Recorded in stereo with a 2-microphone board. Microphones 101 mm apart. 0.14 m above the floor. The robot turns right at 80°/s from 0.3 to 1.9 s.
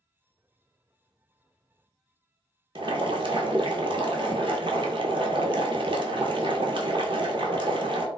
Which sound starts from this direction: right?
Boiling, at 2.8 s.